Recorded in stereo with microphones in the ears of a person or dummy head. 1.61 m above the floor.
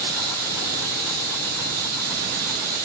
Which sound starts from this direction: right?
Running water, at 0.0 s.